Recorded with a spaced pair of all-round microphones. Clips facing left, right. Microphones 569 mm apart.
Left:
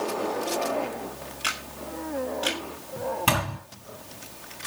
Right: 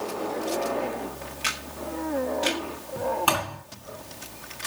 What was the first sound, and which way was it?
A camera shutter, 45° right (ahead or behind).